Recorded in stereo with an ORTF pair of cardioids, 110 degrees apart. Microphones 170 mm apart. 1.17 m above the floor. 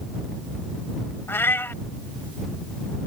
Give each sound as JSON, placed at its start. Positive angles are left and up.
{"t": 1.3, "sound": "a cat meowing", "azimuth_deg": 15}